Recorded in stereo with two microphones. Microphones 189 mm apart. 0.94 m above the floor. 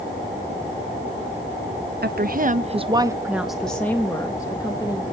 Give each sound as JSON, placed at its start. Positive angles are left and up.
{"t": 2.0, "sound": "a woman speaking", "side_deg": -60, "distance_m": 0.6}